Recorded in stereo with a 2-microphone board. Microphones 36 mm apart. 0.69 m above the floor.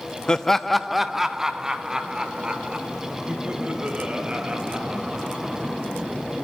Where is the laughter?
20° left (ahead or behind), 0.7 m; by 5.4 s 25° right (ahead or behind), 4.5 m.